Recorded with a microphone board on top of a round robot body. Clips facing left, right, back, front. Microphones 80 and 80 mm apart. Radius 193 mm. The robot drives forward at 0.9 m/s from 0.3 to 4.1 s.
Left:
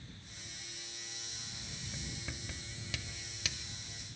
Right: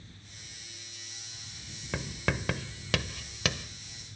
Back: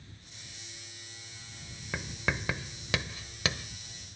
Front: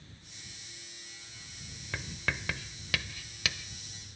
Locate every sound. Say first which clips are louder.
1.9 s writing: right 15 dB, back 2 dB; 105° right; by 3.7 s 125° right